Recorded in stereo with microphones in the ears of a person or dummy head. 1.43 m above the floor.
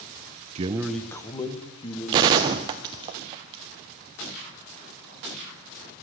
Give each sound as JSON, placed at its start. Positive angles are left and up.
{"t": 0.6, "sound": "a man speaking", "side_deg": -35, "distance_m": 0.5}
{"t": 2.1, "sound": "a gunshot", "side_deg": -20, "distance_m": 0.5}